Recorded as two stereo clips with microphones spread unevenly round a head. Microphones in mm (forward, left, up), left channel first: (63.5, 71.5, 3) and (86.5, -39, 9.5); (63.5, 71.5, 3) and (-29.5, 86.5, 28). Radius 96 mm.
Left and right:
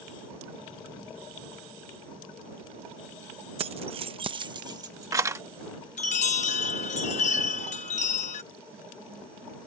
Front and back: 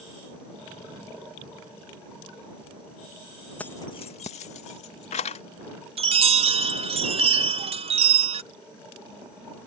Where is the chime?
160° left.